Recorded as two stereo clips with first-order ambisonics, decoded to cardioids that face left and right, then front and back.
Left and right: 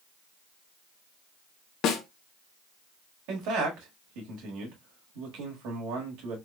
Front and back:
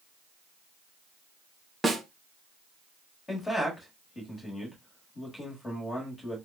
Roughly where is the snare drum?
Left.